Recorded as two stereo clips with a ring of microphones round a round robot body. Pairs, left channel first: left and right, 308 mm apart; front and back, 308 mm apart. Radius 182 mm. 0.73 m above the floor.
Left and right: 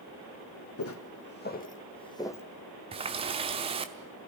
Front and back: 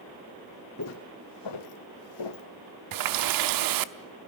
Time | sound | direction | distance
0.8 | footsteps | 50° left | 2 m
2.9 | a running tap | 165° right | 1.0 m